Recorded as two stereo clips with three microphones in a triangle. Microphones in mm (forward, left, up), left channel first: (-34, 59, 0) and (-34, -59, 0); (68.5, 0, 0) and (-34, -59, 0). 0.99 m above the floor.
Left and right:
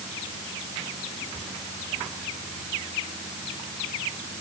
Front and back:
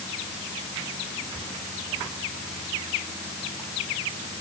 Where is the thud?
I don't hear a thud.